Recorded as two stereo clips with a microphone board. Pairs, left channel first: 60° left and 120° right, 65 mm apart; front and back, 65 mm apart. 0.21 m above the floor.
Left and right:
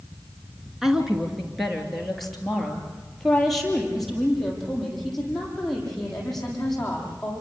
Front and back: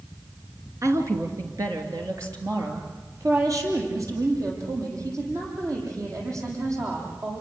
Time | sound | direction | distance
0.8 | a woman speaking | 155° left | 3 m